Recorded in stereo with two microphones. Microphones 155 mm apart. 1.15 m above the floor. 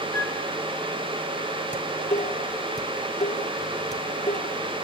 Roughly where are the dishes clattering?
Left.